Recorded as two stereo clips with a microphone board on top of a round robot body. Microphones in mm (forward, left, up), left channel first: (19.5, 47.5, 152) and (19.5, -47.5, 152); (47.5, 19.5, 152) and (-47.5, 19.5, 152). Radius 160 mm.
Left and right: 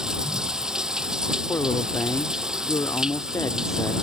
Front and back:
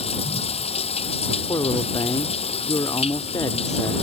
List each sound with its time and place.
0.0 s running water: 5° right
1.5 s a man speaking: 40° left